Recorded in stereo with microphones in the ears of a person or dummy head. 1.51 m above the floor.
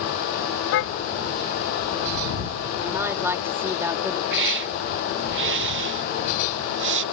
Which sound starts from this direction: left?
A car horn, at 0.7 s.